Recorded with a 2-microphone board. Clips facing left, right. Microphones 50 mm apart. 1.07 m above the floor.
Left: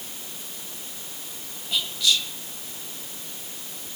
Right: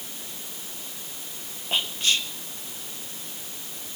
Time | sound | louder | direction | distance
1.7 | whispering | left 1 dB | 40° right (ahead or behind) | 1.0 m